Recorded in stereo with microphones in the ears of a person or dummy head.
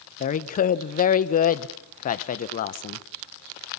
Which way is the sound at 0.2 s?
45° left (ahead or behind).